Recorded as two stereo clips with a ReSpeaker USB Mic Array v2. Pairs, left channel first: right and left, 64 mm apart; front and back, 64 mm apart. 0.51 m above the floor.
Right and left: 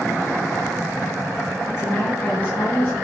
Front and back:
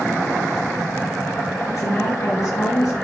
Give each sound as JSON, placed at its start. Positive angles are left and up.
{"t": 1.7, "sound": "a woman speaking", "azimuth_deg": -45, "distance_m": 6.5}